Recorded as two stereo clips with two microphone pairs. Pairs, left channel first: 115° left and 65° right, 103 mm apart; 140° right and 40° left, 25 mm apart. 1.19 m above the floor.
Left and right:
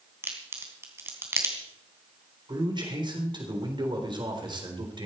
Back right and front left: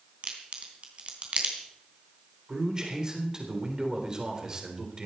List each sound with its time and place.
0.2 s a crack: straight ahead, 3 m
2.5 s a man speaking: 20° right, 3.5 m